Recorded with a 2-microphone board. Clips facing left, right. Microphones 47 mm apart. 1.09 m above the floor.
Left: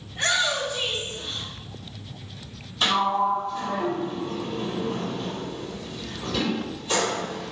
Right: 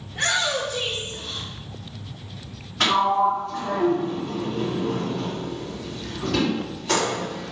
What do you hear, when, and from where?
0.1 s a shout: 70° right (ahead or behind), 3 m; by 1.5 s 80° right, 4 m
2.8 s a sliding door: 80° right, 2 m